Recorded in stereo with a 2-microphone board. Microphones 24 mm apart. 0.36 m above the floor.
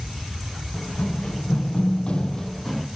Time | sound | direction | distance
0.7 | running footsteps | 45° left (ahead or behind) | 1.5 m